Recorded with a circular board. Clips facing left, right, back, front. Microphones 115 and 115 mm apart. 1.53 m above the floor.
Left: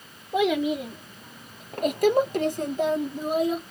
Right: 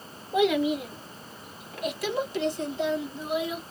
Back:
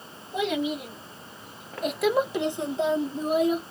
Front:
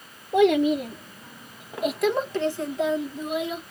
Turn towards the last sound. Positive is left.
turn(degrees=135)